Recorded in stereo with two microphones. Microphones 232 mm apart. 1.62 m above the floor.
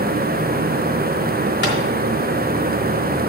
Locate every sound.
1.6 s tapping: 50° left (ahead or behind), 3.5 m